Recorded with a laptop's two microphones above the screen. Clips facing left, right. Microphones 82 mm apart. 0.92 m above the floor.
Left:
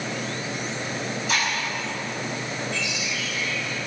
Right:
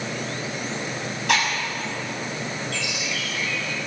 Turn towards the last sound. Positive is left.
turn(degrees=-70)  # may be behind; listen again after turning